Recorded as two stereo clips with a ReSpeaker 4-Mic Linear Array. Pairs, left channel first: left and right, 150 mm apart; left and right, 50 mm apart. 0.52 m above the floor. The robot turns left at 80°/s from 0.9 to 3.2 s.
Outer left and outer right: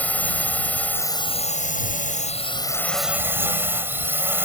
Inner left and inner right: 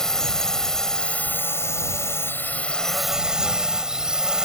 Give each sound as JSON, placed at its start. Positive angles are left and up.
{"t": 0.0, "sound": "a drone", "azimuth_deg": 170}